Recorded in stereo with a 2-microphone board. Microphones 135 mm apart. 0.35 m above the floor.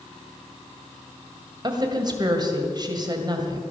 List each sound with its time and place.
1.6 s a woman speaking: 35° right (ahead or behind), 2.0 m